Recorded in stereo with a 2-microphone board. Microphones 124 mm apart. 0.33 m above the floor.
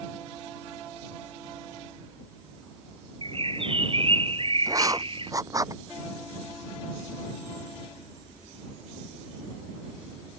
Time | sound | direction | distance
3.2 | a bird | 45° right (ahead or behind) | ?
4.7 | writing | 30° right (ahead or behind) | ?